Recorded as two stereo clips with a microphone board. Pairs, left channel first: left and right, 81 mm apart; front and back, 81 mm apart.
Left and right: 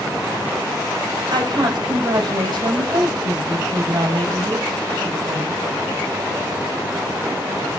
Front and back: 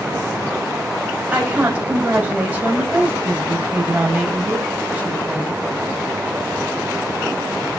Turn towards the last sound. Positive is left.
turn(degrees=-110)